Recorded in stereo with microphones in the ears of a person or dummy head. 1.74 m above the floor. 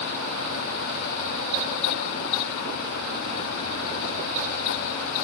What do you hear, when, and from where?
Only background noise.